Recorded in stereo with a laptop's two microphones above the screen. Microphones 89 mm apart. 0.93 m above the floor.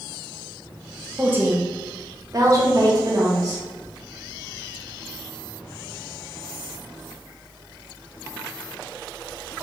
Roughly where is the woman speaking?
Centre.